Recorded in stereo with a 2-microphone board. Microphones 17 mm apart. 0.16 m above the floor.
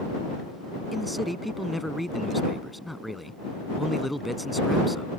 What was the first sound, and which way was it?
A man speaking, 5° right (ahead or behind).